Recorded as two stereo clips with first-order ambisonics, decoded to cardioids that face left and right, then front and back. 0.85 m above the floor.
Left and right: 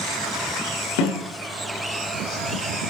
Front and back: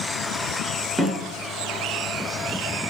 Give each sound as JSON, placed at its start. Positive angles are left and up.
{"t": 1.0, "sound": "a snare drum", "azimuth_deg": 100, "distance_m": 6.5}